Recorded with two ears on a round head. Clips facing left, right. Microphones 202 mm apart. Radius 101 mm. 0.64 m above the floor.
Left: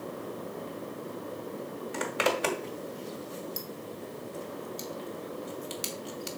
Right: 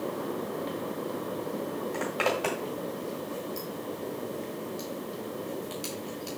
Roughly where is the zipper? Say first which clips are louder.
Left 1 dB; left.